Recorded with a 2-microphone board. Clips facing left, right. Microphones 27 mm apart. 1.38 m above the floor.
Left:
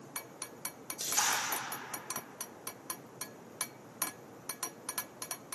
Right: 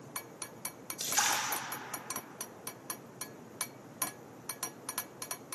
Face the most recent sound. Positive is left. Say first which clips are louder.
# right 1 dB
turn(degrees=-30)  # may be behind; listen again after turning